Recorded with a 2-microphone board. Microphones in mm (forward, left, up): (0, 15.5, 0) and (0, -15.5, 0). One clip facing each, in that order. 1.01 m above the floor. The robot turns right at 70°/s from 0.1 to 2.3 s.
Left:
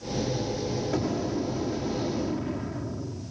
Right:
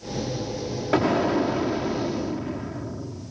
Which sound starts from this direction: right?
An explosion, at 0.9 s.